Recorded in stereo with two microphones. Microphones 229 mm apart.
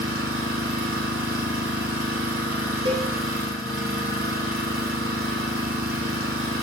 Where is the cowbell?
60° right (ahead or behind), 2.5 m.